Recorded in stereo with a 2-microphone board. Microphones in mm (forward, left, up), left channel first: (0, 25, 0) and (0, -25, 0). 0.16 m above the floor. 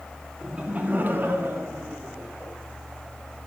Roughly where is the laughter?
Centre.